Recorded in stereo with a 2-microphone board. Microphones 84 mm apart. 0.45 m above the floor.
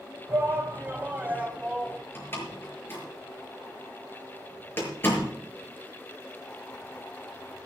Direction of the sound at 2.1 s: 25° left (ahead or behind).